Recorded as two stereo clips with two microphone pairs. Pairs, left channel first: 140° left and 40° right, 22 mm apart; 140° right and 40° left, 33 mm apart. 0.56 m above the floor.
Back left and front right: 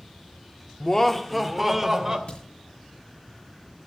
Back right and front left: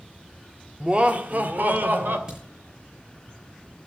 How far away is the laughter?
About 1.2 m.